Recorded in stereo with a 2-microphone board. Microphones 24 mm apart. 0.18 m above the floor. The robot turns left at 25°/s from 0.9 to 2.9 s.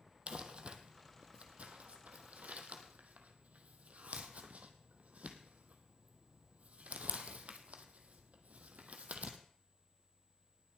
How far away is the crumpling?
About 1.4 m.